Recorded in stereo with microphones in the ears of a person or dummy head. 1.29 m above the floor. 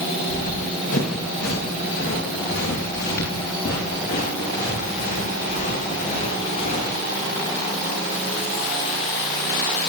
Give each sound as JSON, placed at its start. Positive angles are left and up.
{"t": 0.3, "sound": "running footsteps", "side_deg": 70, "distance_m": 9.0}